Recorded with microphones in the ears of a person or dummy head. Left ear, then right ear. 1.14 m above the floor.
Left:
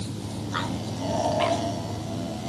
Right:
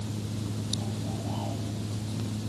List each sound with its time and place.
Only background noise.